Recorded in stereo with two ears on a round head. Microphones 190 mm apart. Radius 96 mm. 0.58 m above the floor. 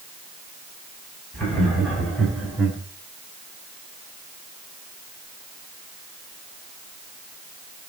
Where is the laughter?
5° left (ahead or behind), 3.5 m; by 2.8 s 10° right (ahead or behind), 3 m.